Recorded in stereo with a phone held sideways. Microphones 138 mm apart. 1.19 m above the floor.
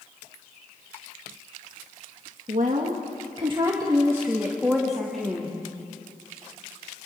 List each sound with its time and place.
2.5 s a woman speaking: 65° right (ahead or behind), 2 m; by 5.5 s 5° left (ahead or behind), 3.5 m